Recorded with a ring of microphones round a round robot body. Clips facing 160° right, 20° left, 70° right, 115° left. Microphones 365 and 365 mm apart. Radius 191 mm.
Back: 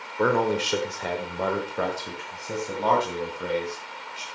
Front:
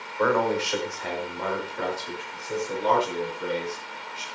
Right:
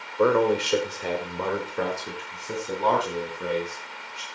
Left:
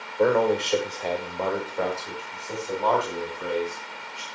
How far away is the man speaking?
About 1.5 m.